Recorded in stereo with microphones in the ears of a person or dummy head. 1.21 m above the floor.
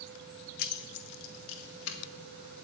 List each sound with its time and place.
0.6 s keys jangling: 50° left (ahead or behind), 0.7 m; by 2.0 s 70° left (ahead or behind), 1.9 m